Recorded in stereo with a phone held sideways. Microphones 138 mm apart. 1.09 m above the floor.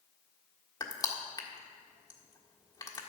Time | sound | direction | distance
0.8 | crushing | 30° left (ahead or behind) | 1.5 m